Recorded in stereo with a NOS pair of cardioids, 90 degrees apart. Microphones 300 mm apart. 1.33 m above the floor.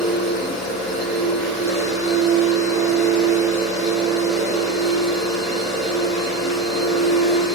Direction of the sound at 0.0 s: 30° left.